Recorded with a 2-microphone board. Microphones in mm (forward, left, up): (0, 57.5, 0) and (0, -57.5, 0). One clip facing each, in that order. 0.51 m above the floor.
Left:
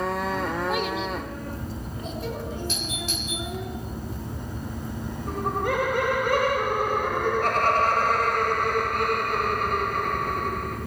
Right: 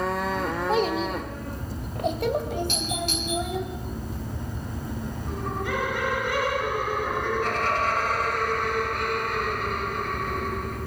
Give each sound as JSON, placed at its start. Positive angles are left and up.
{"t": 0.7, "sound": "a child speaking", "side_deg": -30, "distance_m": 1.1}
{"t": 2.7, "sound": "a doorbell", "side_deg": -60, "distance_m": 4.5}
{"t": 5.3, "sound": "laughter", "side_deg": 55, "distance_m": 2.5}